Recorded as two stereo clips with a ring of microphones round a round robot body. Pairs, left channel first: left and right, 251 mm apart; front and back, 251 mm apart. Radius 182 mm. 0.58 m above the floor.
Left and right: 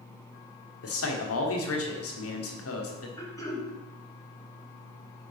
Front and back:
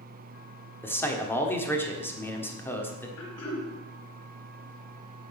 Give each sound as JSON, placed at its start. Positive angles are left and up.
{"t": 0.8, "sound": "a man speaking", "azimuth_deg": 80, "distance_m": 1.6}
{"t": 3.2, "sound": "throat clearing", "azimuth_deg": 15, "distance_m": 2.0}